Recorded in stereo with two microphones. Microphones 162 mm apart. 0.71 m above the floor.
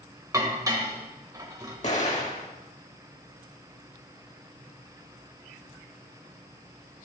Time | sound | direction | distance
0.3 | dishes clattering | 20° right (ahead or behind) | 1.7 m
1.8 | an explosion | 45° left (ahead or behind) | 1.6 m